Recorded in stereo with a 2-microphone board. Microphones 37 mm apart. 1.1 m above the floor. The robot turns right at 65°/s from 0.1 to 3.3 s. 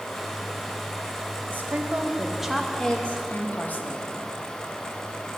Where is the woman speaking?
60° right, 1.1 m; by 4.1 s 55° left, 1.1 m.